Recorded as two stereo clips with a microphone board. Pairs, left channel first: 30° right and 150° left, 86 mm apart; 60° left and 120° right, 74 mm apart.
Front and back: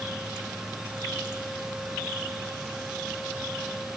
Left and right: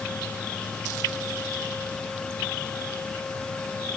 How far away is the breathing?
I don't hear breathing.